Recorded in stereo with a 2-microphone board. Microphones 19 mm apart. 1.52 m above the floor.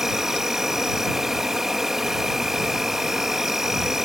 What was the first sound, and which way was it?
An insect, 25° right (ahead or behind).